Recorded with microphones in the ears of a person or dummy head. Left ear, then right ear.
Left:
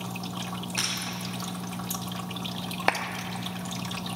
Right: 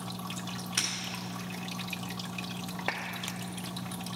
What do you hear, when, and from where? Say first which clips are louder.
0.8 s breaking glass: left 1 dB; 20° right (ahead or behind), 2.5 m
2.9 s a clap: left 9 dB; 30° left (ahead or behind), 0.6 m